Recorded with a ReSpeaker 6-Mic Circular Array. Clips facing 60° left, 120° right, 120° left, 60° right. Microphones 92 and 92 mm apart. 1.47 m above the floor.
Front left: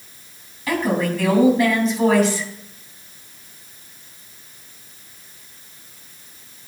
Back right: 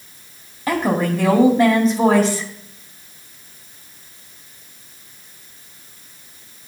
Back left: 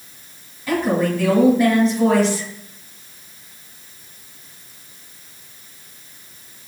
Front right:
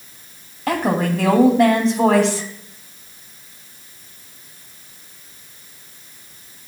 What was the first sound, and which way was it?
A woman speaking, 60° right.